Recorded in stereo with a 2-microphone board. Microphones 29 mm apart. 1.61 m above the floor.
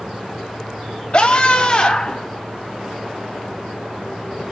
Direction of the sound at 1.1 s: 35° left (ahead or behind).